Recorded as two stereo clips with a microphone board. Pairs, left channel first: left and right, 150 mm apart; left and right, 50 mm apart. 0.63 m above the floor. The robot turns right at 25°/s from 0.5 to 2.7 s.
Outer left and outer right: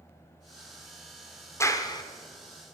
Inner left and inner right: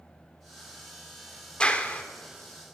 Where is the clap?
20° left (ahead or behind), 1.0 m; by 2.0 s 30° left (ahead or behind), 1.0 m.